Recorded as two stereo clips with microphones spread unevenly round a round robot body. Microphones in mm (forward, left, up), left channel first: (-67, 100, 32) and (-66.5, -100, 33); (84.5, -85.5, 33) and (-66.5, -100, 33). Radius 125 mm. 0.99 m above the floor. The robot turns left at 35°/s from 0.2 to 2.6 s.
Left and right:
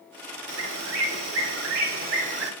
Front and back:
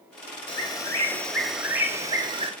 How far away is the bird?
About 2.5 m.